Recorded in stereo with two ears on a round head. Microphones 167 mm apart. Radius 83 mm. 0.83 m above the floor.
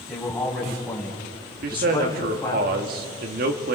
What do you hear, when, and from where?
0.1 s a man speaking: centre (ahead or behind), 5.5 m; by 2.6 s 15° left (ahead or behind), 5 m
1.6 s a man speaking: 50° right (ahead or behind), 1.6 m